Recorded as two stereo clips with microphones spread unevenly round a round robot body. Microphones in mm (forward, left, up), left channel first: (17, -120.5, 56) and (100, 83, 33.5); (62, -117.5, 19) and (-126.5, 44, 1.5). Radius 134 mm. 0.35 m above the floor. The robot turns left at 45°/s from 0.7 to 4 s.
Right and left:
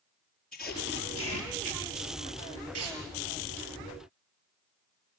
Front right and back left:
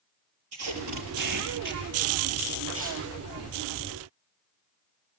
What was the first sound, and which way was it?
Tape being pulled, 160° left.